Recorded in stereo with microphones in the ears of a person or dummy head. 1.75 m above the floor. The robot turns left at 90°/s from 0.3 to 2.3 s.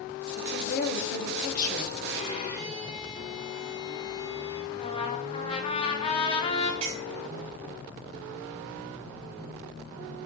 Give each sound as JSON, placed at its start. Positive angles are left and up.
{"t": 0.4, "sound": "a woman speaking", "azimuth_deg": 160, "distance_m": 1.3}
{"t": 2.1, "sound": "a violin", "side_deg": 40, "distance_m": 3.5}
{"t": 4.7, "sound": "a trumpet", "side_deg": 30, "distance_m": 1.1}
{"t": 6.8, "sound": "a clink", "side_deg": -25, "distance_m": 1.2}